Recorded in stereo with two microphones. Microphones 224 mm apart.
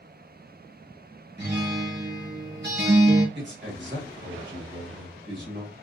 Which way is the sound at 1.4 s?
50° right (ahead or behind).